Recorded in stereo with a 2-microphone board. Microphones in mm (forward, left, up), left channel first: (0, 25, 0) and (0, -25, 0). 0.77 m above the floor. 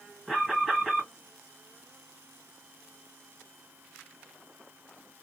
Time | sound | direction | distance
0.3 | an alarm | 5° right (ahead or behind) | 1.6 m